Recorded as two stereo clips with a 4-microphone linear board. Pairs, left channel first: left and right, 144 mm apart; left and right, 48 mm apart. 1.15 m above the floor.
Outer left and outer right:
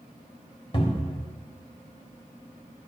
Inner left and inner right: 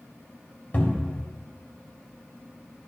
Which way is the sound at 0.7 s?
40° left (ahead or behind).